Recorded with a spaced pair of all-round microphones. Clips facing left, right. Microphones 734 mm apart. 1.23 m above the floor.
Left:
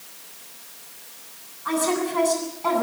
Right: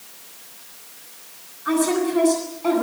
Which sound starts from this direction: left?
A woman speaking, at 1.6 s.